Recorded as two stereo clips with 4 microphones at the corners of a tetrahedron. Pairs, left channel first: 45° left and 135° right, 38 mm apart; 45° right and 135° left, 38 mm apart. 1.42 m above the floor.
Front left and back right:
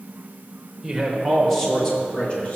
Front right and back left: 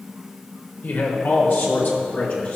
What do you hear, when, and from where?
0.8 s a man speaking: 55° right, 1.7 m; by 2.6 s 10° right, 2.0 m